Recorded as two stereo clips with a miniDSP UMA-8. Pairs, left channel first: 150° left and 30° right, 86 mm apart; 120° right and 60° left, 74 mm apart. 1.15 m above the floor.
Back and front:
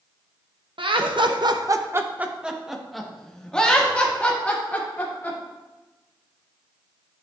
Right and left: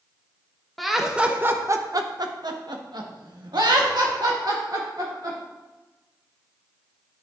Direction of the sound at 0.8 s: 30° right.